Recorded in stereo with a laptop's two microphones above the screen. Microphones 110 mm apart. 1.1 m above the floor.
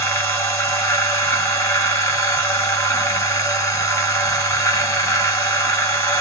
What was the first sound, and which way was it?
A machine running, 25° left (ahead or behind).